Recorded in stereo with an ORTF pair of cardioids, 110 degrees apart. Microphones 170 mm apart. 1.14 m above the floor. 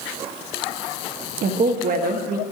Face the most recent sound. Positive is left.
turn(degrees=-55)